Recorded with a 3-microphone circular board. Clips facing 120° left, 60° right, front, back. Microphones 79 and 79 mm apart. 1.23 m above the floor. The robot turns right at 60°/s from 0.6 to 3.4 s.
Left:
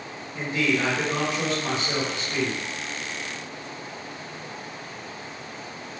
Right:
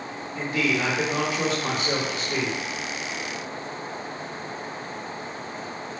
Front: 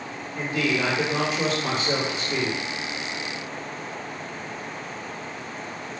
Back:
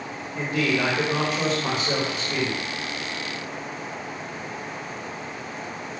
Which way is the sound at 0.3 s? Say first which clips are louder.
Left 1 dB, back 1 dB; 175° right.